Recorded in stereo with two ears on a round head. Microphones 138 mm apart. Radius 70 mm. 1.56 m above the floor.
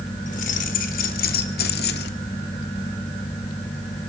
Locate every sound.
0.3 s keys jangling: 50° left (ahead or behind), 4 m; by 2.1 s 75° left (ahead or behind), 2.5 m